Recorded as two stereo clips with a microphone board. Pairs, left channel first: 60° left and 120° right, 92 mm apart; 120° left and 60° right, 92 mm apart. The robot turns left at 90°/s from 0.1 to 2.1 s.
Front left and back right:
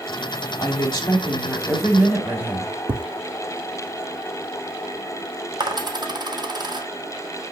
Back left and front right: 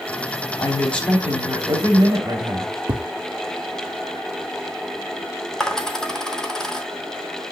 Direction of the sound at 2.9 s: 95° right.